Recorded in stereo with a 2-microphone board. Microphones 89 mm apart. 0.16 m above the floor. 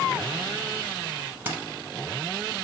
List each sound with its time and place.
1.4 s keys jangling: 20° right (ahead or behind), 0.8 m